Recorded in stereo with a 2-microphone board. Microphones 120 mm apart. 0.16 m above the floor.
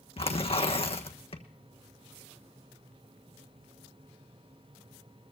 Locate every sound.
0.2 s tearing paper: 55° left (ahead or behind), 1.3 m